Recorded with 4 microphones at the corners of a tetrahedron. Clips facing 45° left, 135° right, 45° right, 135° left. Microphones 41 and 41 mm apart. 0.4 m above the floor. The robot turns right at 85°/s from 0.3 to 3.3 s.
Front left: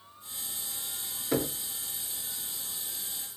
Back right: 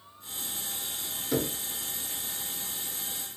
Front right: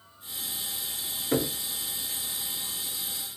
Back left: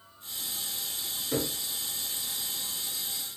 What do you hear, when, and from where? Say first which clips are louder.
1.3 s knocking: even, front right 4 dB; 25° right, 0.5 m; by 1.6 s straight ahead, 0.5 m